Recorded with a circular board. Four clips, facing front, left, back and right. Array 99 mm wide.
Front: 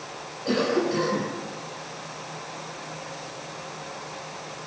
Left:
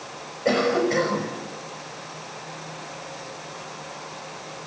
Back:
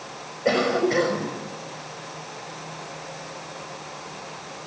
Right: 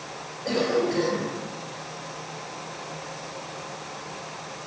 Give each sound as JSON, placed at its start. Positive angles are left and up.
{"t": 0.5, "sound": "a cough", "azimuth_deg": 145, "distance_m": 5.5}